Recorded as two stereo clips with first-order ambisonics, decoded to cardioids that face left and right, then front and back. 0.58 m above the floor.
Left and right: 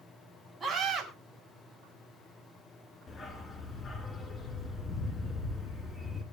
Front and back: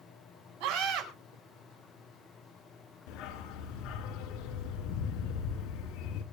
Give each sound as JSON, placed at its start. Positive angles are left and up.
{"t": 0.6, "sound": "a scream", "azimuth_deg": 180, "distance_m": 5.0}
{"t": 3.1, "sound": "a dog barking", "azimuth_deg": 25, "distance_m": 2.0}